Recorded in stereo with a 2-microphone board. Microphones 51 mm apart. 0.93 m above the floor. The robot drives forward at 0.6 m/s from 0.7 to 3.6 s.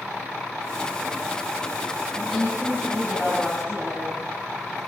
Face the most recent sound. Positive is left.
turn(degrees=-5)  # may be behind; listen again after turning